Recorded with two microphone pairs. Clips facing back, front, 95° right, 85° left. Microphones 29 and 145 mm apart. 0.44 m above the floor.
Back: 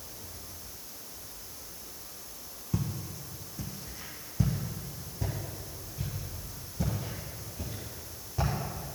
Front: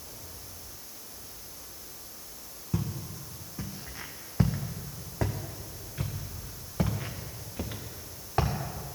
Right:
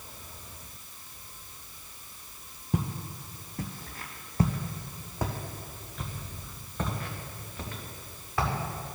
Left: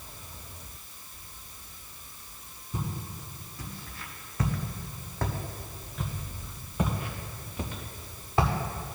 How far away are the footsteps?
About 1.3 m.